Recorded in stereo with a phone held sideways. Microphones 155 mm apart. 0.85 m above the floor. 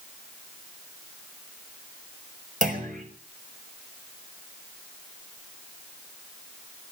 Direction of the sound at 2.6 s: 65° right (ahead or behind).